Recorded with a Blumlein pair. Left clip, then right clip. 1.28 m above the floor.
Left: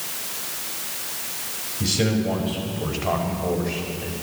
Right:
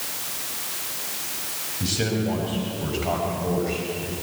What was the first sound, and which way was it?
A man speaking, 55° left.